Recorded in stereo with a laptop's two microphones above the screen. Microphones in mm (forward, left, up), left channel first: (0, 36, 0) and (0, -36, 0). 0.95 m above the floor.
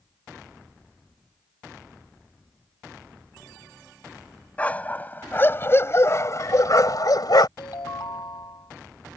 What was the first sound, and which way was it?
A dog barking, 20° left (ahead or behind).